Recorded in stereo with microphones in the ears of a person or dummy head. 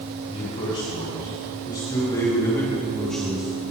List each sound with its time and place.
0.3 s a man speaking: 30° left (ahead or behind), 5.5 m; by 3.5 s 5° right (ahead or behind), 1.8 m